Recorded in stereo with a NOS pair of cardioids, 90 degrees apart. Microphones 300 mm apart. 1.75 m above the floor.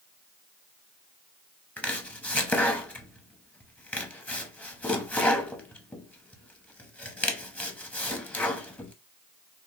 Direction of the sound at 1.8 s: 5° left.